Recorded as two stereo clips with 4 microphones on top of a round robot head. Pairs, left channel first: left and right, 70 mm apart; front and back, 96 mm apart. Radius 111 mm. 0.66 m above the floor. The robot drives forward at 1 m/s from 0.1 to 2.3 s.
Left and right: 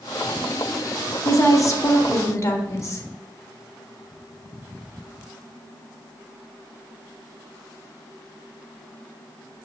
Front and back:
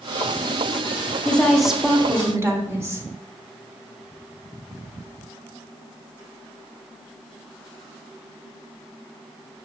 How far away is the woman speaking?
About 1.5 m.